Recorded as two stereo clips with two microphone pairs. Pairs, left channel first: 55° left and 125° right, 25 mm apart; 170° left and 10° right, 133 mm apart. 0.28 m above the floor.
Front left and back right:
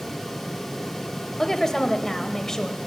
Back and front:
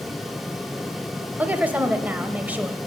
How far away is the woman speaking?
About 0.9 m.